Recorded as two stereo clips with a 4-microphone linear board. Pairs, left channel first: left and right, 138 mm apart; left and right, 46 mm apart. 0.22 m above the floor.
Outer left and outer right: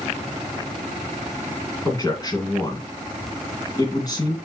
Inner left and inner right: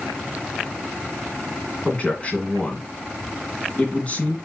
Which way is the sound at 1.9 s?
30° left (ahead or behind).